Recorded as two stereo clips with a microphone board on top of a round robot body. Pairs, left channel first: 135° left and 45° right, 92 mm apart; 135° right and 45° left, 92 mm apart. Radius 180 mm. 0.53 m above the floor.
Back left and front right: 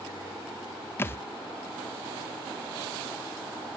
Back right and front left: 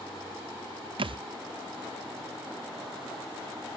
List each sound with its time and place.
1.0 s a thud: 70° left, 0.6 m